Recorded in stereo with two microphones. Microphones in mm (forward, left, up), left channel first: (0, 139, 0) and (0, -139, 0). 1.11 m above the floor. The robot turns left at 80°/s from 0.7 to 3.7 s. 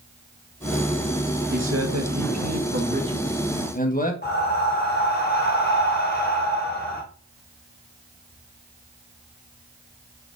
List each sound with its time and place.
1.5 s a man speaking: 35° right, 1.6 m; by 4.1 s 150° left, 1.6 m
4.2 s breathing: 35° left (ahead or behind), 2 m